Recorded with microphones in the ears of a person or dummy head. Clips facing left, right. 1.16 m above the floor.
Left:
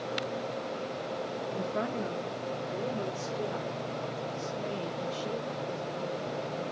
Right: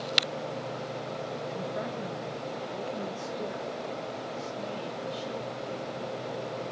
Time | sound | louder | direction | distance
1.5 | a woman speaking | left 5 dB | 55° left (ahead or behind) | 0.8 m